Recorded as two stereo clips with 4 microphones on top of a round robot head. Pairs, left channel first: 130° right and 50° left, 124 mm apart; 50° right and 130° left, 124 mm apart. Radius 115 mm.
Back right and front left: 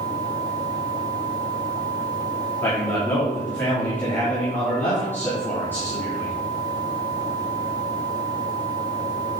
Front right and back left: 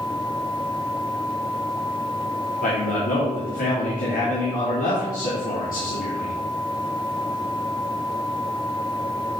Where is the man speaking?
55° right, 2.5 m.